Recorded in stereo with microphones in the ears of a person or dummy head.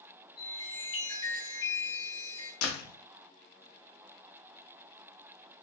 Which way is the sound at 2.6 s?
80° left.